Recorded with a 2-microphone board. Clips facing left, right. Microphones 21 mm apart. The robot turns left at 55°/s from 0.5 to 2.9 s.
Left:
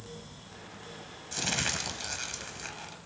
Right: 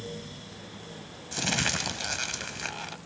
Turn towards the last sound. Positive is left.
turn(degrees=-100)